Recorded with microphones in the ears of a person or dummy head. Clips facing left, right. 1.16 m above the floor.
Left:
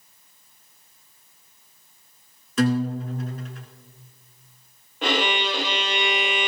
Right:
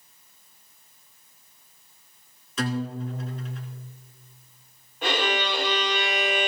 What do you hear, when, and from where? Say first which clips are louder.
2.6 s a guitar: left 7 dB; 50° left (ahead or behind), 2.5 m
5.0 s a violin: left 2 dB; 60° left (ahead or behind), 1.6 m